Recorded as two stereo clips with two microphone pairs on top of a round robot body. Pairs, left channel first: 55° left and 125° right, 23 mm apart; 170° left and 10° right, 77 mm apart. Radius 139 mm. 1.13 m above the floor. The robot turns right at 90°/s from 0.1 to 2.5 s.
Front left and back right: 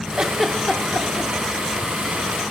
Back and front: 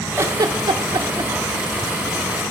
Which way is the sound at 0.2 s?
65° right.